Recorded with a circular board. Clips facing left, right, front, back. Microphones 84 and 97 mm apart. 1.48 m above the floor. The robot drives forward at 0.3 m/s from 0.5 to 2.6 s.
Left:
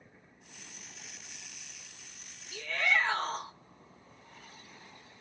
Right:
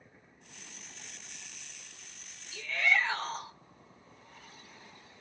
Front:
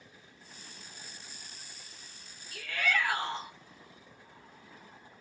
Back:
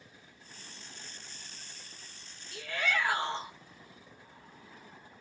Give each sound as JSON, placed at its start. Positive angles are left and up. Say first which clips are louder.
{"t": 2.5, "sound": "a shout", "louder": "even, front 1 dB", "azimuth_deg": 115, "distance_m": 1.8}